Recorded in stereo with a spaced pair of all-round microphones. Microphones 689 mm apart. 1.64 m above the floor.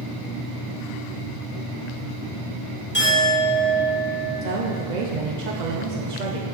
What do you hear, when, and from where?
2.9 s a clink: 15° left (ahead or behind), 2 m
4.4 s a woman speaking: 80° right, 0.7 m